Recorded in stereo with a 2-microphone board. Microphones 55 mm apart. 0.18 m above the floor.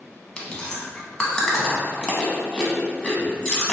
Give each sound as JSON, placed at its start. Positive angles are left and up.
{"t": 0.4, "sound": "chewing", "side_deg": 20, "distance_m": 0.8}